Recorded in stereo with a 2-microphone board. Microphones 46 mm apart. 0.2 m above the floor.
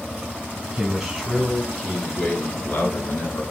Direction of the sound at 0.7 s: 10° right (ahead or behind).